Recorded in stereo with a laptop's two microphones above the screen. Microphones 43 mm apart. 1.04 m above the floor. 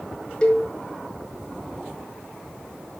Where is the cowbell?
25° left (ahead or behind), 1.5 m.